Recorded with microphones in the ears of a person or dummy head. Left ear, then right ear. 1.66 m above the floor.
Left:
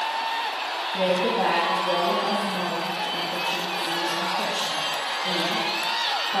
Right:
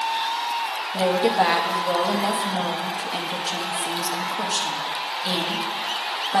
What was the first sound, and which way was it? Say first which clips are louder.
A woman speaking: right 3 dB; 70° right (ahead or behind).